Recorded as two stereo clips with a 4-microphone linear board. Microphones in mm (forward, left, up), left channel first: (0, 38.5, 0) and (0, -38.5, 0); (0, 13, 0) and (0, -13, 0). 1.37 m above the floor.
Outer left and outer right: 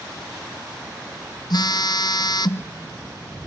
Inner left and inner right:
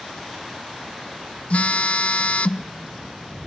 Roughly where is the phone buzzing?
Left.